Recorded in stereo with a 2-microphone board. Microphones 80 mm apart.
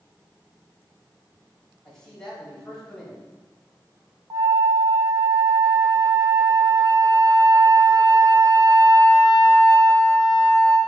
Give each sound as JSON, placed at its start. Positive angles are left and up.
{"t": 1.9, "sound": "a man speaking", "side_deg": 10, "distance_m": 3.0}
{"t": 4.3, "sound": "a flute", "side_deg": -55, "distance_m": 1.0}